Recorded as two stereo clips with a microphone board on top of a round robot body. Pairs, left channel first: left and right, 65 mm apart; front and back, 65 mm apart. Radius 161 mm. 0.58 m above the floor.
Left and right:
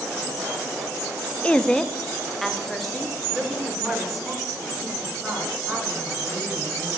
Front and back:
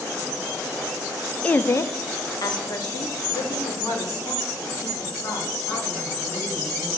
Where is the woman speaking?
40° left, 0.6 m; by 6.9 s straight ahead, 4.5 m.